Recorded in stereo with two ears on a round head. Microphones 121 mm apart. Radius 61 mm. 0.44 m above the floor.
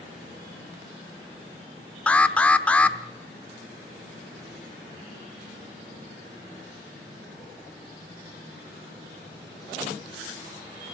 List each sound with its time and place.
2.1 s an alarm: 10° left (ahead or behind), 0.9 m